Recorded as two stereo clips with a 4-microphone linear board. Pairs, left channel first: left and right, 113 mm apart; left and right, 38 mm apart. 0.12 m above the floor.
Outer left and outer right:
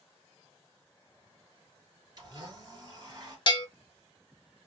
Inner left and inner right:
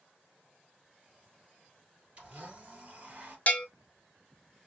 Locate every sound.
2.2 s a blender: 35° right (ahead or behind), 1.8 m
3.5 s a bell: 45° left (ahead or behind), 0.5 m